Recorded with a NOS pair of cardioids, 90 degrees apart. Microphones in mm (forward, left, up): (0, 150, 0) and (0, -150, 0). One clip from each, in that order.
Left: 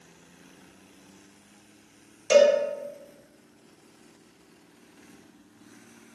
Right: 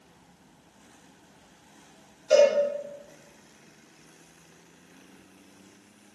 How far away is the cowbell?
About 1.3 m.